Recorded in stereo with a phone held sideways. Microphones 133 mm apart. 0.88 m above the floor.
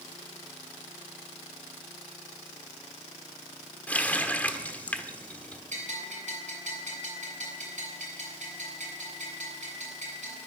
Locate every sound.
3.9 s a running tap: 10° left (ahead or behind), 1.3 m
5.7 s a bell: 65° right (ahead or behind), 7.5 m